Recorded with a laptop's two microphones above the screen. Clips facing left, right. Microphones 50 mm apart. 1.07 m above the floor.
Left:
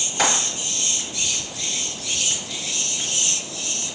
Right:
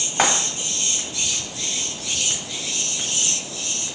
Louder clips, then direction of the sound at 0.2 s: Right 2 dB; 40° right (ahead or behind).